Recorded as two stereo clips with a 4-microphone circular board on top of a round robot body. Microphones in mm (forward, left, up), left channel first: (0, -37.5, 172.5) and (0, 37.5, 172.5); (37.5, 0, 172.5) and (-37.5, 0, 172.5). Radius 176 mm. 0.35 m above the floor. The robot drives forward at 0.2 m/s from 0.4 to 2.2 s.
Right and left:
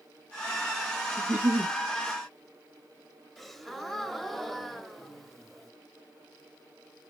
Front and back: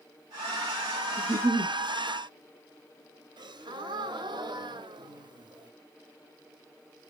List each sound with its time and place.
1.2 s a giggle: 155° left, 1.2 m
3.4 s a gasp: straight behind, 0.9 m